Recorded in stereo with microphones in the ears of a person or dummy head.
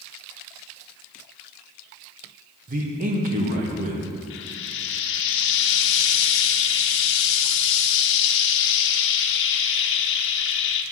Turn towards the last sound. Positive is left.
turn(degrees=70)  # may be behind; listen again after turning